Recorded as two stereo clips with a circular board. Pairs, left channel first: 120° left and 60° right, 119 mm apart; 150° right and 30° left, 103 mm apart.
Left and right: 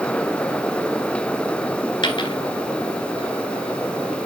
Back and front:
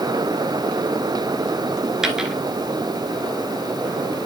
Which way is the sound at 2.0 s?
110° left.